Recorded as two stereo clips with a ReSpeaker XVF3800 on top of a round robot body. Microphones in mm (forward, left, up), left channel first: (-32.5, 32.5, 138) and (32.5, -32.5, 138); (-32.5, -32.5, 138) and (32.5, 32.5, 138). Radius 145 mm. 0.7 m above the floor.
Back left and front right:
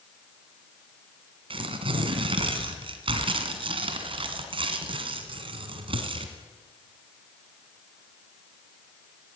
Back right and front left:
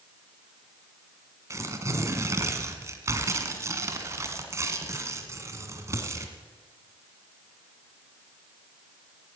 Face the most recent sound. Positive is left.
turn(degrees=-15)